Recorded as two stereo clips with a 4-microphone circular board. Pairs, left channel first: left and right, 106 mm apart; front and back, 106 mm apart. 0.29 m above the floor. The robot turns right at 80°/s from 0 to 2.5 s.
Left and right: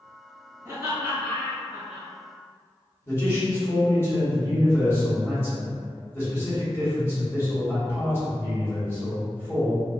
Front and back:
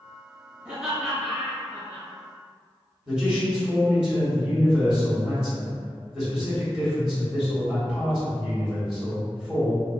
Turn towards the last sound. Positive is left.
turn(degrees=105)